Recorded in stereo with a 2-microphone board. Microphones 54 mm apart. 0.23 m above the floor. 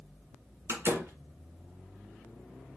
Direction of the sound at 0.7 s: 50° right (ahead or behind).